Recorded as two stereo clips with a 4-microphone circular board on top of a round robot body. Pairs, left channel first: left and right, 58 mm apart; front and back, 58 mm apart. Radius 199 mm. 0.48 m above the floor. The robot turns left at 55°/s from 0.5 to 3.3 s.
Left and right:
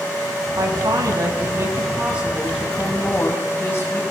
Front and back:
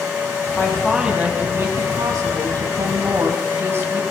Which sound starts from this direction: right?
A woman speaking, at 0.6 s.